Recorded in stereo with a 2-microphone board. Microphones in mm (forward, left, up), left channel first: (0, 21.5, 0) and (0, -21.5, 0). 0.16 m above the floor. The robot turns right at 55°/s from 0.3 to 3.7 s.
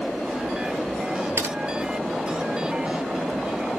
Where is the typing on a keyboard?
80° right, 0.5 m; by 1.6 s 75° right (ahead or behind), 0.5 m.